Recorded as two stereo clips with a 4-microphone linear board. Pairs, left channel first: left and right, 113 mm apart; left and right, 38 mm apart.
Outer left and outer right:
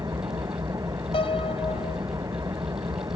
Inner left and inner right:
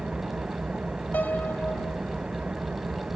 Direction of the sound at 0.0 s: 30° right (ahead or behind).